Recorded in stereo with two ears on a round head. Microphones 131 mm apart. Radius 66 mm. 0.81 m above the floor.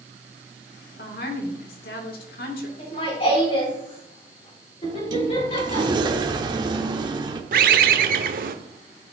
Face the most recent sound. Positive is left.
turn(degrees=-65)  # may be behind; listen again after turning